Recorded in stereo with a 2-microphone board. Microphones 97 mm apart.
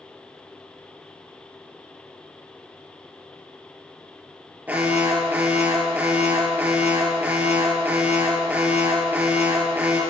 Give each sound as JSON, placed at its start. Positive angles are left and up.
{"t": 4.7, "sound": "an alarm", "side_deg": -15, "distance_m": 4.5}